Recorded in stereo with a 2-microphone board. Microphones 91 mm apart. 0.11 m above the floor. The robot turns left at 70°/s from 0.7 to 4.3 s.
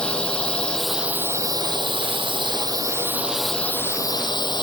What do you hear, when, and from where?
0.0 s a drone: 10° left; by 4.6 s 120° left